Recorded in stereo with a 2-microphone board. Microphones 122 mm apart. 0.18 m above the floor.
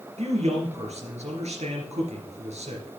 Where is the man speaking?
65° right (ahead or behind), 3 m.